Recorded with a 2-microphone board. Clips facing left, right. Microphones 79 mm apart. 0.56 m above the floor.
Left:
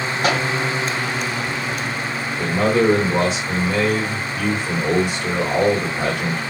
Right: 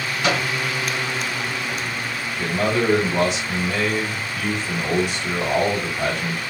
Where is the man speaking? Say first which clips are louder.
Left 4 dB; 40° left (ahead or behind), 2.5 m.